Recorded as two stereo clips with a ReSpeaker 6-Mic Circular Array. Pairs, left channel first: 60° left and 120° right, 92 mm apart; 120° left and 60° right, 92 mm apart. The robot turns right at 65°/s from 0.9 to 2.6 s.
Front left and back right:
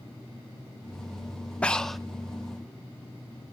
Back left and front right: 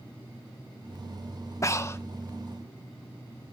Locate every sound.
1.6 s breathing: 125° left, 0.7 m; by 2.0 s 150° left, 0.7 m